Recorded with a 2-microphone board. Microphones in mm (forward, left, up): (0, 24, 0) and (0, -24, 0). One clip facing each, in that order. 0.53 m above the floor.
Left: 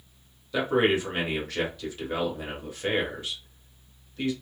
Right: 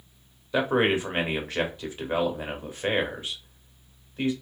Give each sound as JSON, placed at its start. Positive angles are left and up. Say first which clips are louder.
{"t": 0.5, "sound": "a man speaking", "louder": "even", "side_deg": -25, "distance_m": 1.2}